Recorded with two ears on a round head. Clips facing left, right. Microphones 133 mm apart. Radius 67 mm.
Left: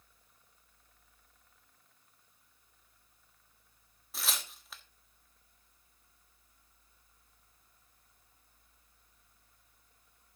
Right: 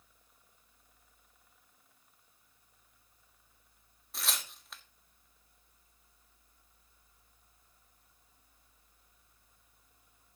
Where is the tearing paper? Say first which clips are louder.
Even; centre (ahead or behind), 1.2 m.